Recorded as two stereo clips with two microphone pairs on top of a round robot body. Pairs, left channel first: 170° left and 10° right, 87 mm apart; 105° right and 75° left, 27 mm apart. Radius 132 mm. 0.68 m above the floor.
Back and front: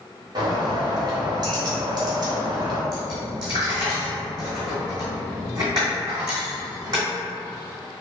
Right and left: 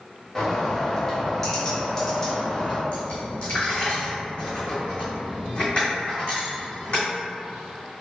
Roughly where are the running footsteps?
I don't hear running footsteps.